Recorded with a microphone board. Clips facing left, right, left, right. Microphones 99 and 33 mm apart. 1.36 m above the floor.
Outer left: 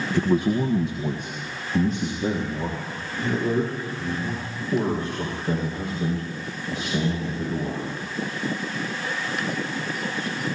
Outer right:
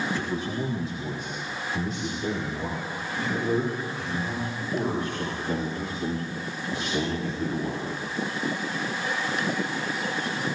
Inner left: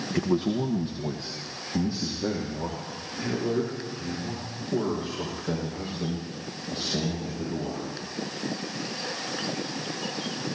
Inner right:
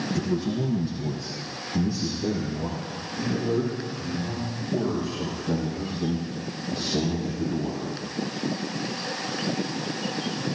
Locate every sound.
0.1 s a man speaking: 60° left (ahead or behind), 1.0 m; by 7.9 s 40° left (ahead or behind), 7.5 m